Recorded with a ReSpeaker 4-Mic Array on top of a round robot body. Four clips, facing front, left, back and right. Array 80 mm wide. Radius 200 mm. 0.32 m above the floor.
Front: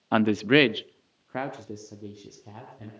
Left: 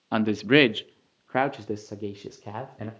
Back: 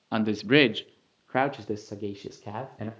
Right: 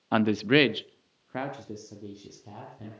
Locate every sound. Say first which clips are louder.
0.1 s a man speaking: left 2 dB, front 2 dB; 15° right, 0.9 m; by 2.9 s 130° left, 2 m